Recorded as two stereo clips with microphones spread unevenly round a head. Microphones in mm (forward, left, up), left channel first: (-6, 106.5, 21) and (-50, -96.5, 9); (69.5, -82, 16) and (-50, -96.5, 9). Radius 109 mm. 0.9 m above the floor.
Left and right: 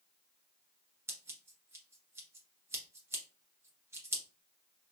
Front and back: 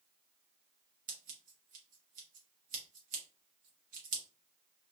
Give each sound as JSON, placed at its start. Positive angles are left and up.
{"t": 1.1, "sound": "scissors", "azimuth_deg": 180, "distance_m": 1.0}